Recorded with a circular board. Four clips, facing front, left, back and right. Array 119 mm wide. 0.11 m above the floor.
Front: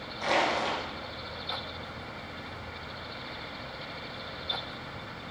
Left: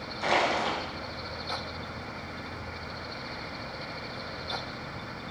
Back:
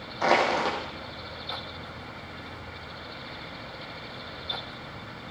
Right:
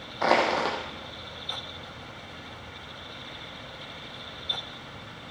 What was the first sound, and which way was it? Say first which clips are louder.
Crushing: right 3 dB, back 5 dB; 120° right.